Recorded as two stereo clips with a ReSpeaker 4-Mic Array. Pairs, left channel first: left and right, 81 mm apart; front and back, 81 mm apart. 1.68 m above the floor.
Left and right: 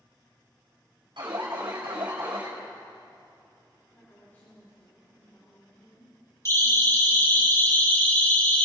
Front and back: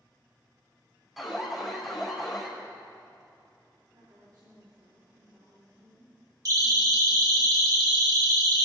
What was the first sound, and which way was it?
An alarm, 90° right.